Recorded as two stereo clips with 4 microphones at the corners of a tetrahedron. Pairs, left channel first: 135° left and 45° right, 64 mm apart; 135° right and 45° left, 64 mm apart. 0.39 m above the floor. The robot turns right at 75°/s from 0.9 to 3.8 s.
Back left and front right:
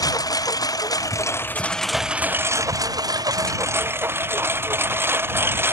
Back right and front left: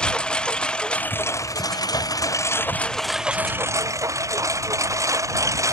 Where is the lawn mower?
150° left; by 5.7 s 10° left.